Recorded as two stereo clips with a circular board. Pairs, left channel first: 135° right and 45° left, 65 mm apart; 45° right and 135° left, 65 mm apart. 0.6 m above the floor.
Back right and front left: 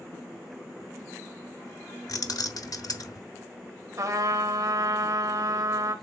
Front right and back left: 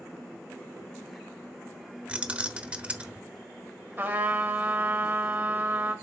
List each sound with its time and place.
2.1 s keys jangling: 155° right, 1.1 m
4.0 s a trumpet: 75° left, 1.9 m